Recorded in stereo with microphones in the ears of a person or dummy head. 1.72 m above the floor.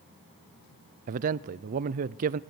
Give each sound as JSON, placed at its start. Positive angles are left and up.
{"t": 1.1, "sound": "a man speaking", "side_deg": -45, "distance_m": 0.5}